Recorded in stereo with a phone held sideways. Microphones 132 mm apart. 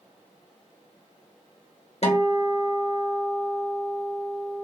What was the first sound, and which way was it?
A guitar, 50° left (ahead or behind).